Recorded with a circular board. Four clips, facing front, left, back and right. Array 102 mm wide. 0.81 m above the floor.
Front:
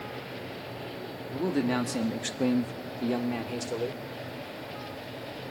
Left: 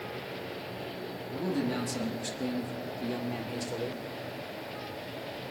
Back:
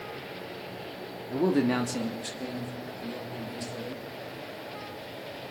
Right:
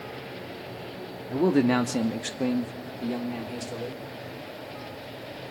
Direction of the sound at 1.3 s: 115° right.